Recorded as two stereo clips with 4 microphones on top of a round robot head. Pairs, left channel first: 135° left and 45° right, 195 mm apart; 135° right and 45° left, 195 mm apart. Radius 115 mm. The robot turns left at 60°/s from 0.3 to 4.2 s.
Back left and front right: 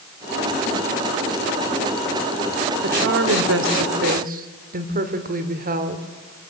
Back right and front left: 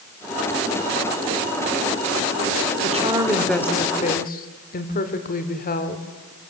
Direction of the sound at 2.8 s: 10° right.